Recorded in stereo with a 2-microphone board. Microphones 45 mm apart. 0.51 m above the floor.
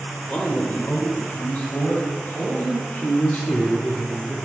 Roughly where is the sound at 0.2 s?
Centre.